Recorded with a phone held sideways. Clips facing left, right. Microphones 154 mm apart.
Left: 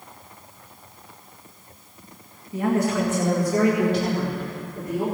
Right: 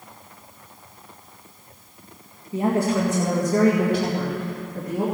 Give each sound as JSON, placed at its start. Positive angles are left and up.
{"t": 2.5, "sound": "a woman speaking", "side_deg": -20, "distance_m": 1.5}